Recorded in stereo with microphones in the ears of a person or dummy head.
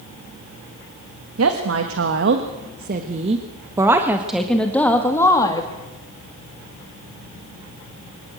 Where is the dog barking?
No dog barking in this recording.